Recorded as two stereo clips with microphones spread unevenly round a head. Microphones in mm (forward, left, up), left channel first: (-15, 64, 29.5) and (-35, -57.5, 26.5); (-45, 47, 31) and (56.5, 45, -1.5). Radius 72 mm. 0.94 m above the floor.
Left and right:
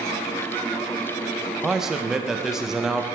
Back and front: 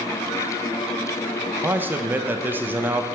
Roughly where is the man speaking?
Ahead.